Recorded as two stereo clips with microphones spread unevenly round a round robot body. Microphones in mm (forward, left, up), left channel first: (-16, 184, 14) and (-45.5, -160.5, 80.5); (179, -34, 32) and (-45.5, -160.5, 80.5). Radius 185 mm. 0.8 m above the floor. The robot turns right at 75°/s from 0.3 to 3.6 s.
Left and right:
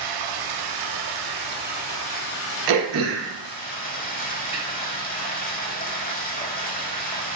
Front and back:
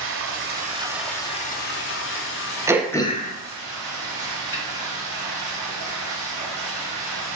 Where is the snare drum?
15° right, 2 m.